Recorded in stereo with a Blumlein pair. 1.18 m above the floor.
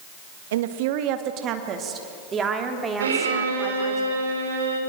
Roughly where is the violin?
Ahead right.